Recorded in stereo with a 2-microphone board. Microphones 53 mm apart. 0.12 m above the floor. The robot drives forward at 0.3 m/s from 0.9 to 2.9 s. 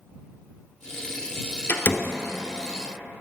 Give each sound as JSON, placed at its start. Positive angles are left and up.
{"t": 1.7, "sound": "a door slam", "side_deg": 40, "distance_m": 1.1}